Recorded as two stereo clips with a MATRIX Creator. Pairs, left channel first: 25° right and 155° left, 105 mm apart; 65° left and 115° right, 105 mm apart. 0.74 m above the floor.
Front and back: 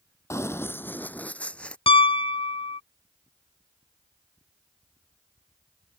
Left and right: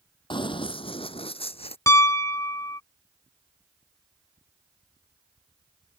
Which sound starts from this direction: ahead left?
Running footsteps, at 0.3 s.